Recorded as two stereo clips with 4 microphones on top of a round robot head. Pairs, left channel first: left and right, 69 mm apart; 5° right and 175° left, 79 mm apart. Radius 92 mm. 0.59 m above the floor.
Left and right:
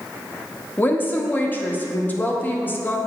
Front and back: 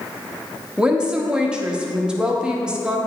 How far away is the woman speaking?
About 1.0 m.